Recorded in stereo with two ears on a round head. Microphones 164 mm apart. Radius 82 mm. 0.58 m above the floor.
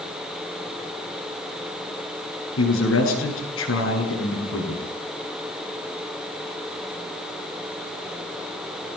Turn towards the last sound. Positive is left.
turn(degrees=80)